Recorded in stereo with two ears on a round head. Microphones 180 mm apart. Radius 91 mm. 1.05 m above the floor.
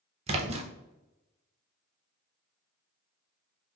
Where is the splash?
30° right (ahead or behind), 0.5 m.